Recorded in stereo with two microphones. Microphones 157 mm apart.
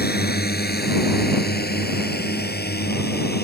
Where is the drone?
80° left; by 3.5 s 85° left.